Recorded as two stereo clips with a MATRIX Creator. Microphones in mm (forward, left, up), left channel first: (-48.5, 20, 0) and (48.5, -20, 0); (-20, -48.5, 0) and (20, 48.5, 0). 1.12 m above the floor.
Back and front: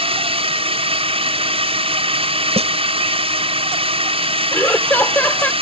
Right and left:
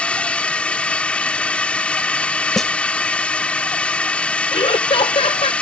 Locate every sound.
0.0 s a drone: 35° right
2.6 s a snare drum: 25° right
4.5 s laughter: 130° right